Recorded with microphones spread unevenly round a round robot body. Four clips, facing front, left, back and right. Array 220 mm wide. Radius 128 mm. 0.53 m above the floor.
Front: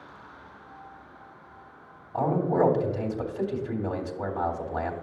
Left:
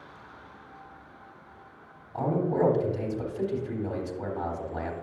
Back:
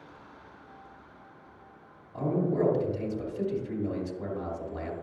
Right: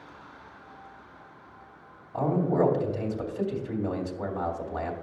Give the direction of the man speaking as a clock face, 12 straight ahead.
1 o'clock.